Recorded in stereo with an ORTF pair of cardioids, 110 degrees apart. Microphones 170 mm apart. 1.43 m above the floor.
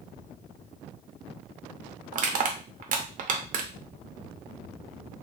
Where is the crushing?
50° right, 0.7 m.